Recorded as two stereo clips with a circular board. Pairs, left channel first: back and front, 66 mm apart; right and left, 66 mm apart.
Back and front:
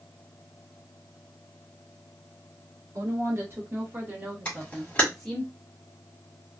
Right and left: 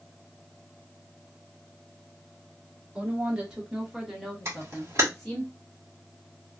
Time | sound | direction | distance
3.0 | a woman speaking | 20° left | 1.7 m
4.5 | a camera shutter | 120° left | 1.6 m